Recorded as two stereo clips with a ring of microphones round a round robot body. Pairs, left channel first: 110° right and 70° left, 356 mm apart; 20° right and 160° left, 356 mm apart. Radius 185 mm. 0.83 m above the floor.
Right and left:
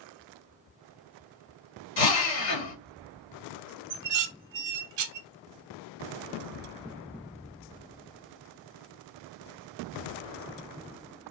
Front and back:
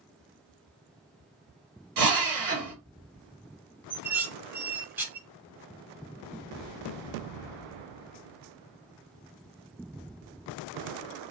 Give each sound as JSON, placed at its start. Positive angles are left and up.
{"t": 2.0, "sound": "a drill", "azimuth_deg": -170, "distance_m": 2.0}
{"t": 3.9, "sound": "dishes clattering", "azimuth_deg": 70, "distance_m": 0.6}